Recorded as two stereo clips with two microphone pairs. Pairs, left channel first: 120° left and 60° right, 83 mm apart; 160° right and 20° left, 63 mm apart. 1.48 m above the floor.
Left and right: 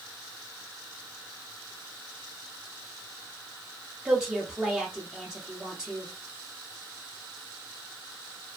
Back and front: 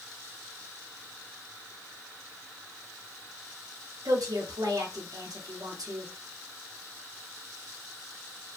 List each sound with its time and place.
4.0 s a woman speaking: 20° left, 0.8 m